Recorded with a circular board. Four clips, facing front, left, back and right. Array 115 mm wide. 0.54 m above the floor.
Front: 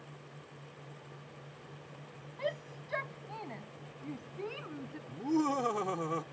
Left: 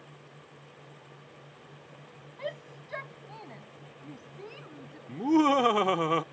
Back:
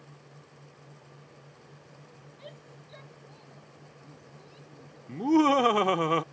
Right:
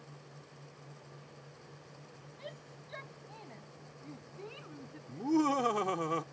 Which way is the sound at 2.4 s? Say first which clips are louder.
Left 11 dB, front 13 dB; 35° left.